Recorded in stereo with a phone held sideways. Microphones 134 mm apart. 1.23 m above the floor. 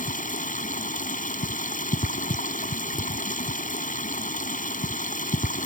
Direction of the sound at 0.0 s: 80° left.